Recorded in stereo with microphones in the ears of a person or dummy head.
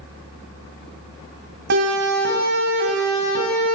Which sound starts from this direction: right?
A siren, at 1.7 s.